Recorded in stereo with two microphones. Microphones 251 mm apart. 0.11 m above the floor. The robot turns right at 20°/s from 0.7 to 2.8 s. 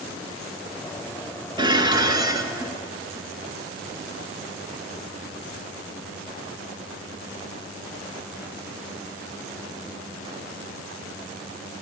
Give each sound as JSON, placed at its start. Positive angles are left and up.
{"t": 1.6, "sound": "dishes clattering", "side_deg": -15, "distance_m": 0.7}